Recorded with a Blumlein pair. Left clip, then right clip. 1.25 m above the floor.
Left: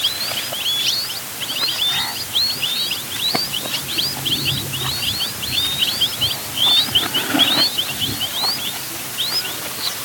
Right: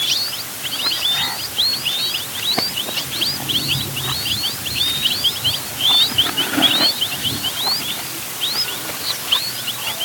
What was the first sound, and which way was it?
Only background noise.